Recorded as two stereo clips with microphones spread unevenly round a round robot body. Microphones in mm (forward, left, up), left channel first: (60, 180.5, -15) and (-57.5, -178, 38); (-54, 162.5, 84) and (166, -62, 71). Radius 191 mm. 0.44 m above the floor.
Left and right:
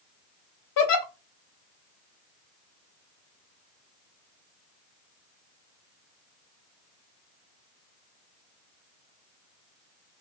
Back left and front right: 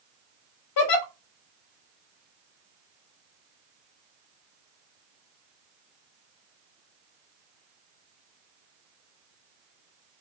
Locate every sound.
0.8 s a giggle: 115° left, 0.7 m